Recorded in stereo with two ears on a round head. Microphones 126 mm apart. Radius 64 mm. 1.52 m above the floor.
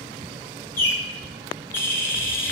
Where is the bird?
15° left (ahead or behind), 0.7 m.